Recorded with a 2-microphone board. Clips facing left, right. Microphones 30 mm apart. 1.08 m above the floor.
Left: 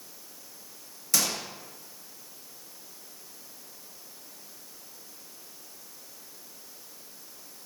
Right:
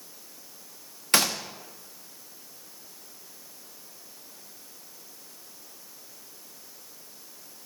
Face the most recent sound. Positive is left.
turn(degrees=-55)  # may be behind; listen again after turning